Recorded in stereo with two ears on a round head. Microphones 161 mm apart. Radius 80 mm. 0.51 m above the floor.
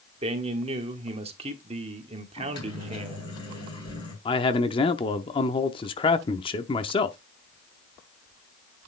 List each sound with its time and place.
0.2 s a man speaking: 35° right (ahead or behind), 1.4 m
2.4 s a microwave: 25° left (ahead or behind), 3.5 m
4.2 s a man speaking: 30° left (ahead or behind), 0.7 m